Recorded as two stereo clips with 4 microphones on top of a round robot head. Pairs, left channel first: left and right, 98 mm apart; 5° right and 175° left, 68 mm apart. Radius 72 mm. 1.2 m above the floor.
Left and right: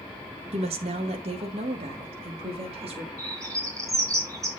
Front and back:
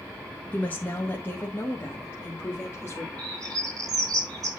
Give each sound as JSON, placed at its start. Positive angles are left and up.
{"t": 0.5, "sound": "a woman speaking", "azimuth_deg": -75, "distance_m": 1.3}
{"t": 3.2, "sound": "a bird", "azimuth_deg": -145, "distance_m": 3.5}